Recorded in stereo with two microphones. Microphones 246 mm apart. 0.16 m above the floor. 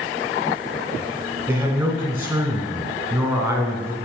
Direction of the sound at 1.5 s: 10° right (ahead or behind).